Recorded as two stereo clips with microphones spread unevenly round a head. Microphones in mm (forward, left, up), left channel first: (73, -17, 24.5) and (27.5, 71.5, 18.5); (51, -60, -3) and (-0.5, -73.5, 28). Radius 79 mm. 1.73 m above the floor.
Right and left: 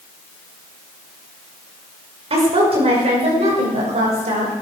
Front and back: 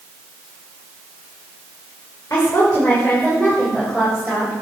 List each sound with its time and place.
2.3 s a woman speaking: 95° left, 6 m; by 4.5 s 115° left, 8 m